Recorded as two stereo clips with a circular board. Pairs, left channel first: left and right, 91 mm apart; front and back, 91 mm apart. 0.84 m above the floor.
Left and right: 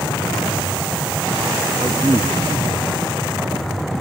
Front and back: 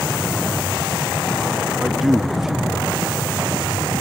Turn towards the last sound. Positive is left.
turn(degrees=-95)